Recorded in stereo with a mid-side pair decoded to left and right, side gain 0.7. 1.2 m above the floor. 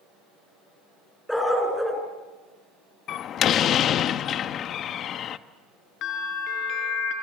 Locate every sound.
1.3 s a dog barking: 5° left, 5 m
3.1 s a door slam: 45° left, 1.1 m
6.0 s a bell: 55° left, 4 m